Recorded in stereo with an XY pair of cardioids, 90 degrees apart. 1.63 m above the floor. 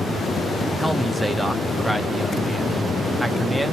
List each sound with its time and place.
0.8 s a man speaking: 5° right, 1.0 m